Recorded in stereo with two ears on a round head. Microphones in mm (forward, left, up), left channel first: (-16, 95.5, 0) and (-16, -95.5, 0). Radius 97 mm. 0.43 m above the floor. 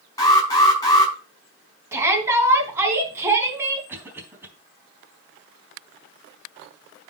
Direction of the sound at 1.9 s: 15° right (ahead or behind).